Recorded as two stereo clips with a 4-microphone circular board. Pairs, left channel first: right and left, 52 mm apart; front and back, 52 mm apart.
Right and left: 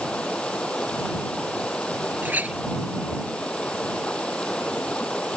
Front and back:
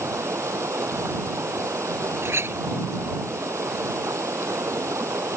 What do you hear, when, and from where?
0.0 s running water: 160° right
2.2 s a clink: 145° left